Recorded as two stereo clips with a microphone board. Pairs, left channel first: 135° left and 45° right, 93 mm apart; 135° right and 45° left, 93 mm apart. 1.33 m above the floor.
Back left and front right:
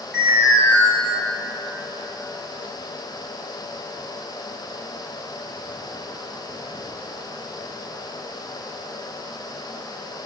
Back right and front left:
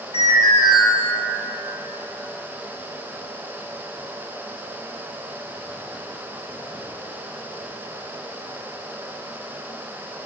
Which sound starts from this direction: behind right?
An alarm, at 0.1 s.